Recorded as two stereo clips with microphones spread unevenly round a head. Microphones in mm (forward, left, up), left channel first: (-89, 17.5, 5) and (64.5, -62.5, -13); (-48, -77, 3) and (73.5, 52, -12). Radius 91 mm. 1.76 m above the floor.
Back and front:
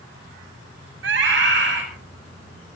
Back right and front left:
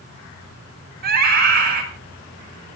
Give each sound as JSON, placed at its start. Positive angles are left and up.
{"t": 1.0, "sound": "a scream", "azimuth_deg": 5, "distance_m": 9.5}